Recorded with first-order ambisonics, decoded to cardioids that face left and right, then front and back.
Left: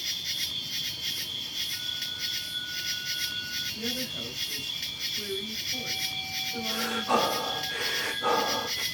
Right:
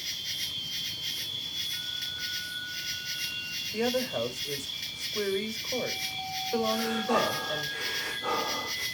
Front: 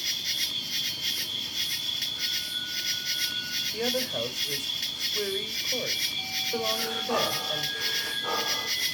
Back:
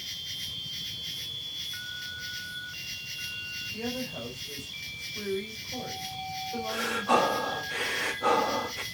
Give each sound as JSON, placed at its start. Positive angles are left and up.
{"t": 0.0, "sound": "an insect", "azimuth_deg": 15, "distance_m": 1.4}
{"t": 3.7, "sound": "a woman speaking", "azimuth_deg": -60, "distance_m": 4.5}
{"t": 6.7, "sound": "breathing", "azimuth_deg": 155, "distance_m": 2.5}